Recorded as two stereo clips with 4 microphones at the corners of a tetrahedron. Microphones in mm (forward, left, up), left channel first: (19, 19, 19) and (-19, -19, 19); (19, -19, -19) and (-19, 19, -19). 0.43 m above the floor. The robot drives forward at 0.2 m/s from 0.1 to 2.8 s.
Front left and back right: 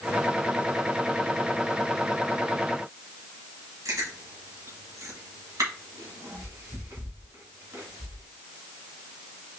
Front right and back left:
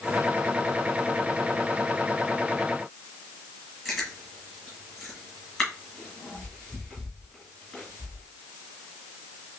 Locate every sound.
3.9 s chewing: 135° right, 2 m